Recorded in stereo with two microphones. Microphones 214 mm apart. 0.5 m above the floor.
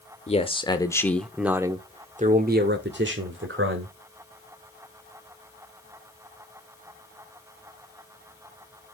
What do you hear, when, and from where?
0.3 s a man speaking: 30° left (ahead or behind), 1.4 m; by 3.9 s 65° right (ahead or behind), 1.9 m